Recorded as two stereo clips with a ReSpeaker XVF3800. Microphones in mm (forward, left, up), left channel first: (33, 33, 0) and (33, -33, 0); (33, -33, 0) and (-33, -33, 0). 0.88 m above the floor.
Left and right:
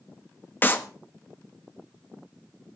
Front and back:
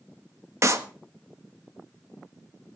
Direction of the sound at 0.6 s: 145° left.